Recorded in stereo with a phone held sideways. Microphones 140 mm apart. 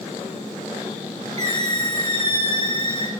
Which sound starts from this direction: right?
A squeak, at 1.4 s.